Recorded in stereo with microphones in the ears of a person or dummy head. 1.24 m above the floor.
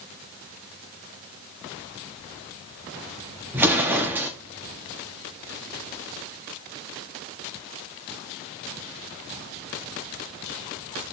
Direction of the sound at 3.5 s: 5° right (ahead or behind).